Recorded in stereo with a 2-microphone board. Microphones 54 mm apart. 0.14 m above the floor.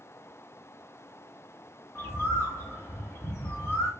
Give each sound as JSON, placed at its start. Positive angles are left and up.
{"t": 1.9, "sound": "a bird", "side_deg": 55, "distance_m": 4.0}